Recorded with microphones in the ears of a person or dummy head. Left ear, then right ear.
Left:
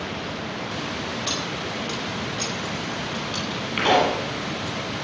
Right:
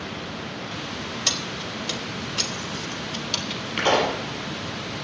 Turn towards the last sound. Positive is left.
turn(degrees=-5)  # may be behind; listen again after turning